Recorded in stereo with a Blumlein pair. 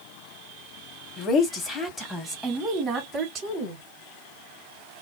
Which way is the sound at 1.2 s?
25° left.